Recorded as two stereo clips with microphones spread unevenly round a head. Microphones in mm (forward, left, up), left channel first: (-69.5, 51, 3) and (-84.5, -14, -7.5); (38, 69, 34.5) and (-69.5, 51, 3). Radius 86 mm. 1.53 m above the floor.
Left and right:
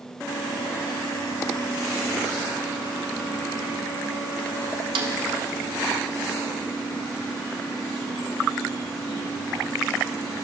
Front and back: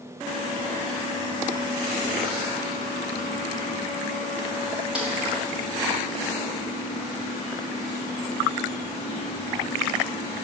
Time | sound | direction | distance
5.0 | a snare drum | 85° right | 0.7 m